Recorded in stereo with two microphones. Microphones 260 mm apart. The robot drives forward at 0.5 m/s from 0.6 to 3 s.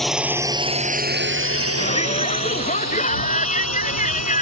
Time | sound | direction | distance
0.0 | a drone | centre (ahead or behind) | ?
1.8 | a shout | 25° left (ahead or behind) | ?